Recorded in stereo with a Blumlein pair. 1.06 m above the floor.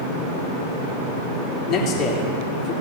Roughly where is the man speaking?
Ahead left.